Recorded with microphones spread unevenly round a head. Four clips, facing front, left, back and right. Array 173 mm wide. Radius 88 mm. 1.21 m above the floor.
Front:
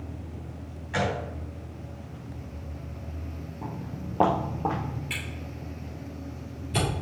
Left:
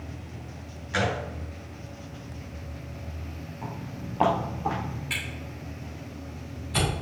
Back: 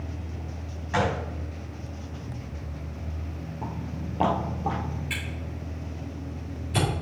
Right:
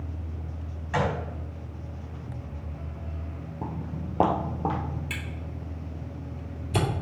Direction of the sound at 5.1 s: 90° right.